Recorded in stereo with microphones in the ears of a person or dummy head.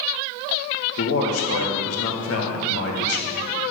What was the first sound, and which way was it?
A man speaking, 85° left.